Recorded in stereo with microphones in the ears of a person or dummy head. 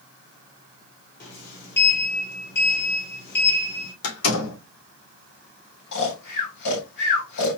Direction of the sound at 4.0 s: 80° left.